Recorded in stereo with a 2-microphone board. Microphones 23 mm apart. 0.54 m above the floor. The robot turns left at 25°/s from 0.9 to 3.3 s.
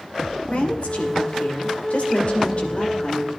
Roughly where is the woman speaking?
Left.